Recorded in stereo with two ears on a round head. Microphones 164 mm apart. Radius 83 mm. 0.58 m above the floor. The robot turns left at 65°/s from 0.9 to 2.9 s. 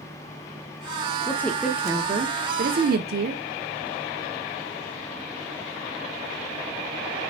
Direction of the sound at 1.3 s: 20° left.